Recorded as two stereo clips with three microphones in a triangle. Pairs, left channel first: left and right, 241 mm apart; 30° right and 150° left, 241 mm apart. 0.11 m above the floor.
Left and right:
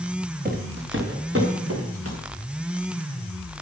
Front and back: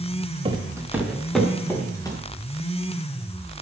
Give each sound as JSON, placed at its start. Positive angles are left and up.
{"t": 0.5, "sound": "footsteps", "azimuth_deg": -140, "distance_m": 3.0}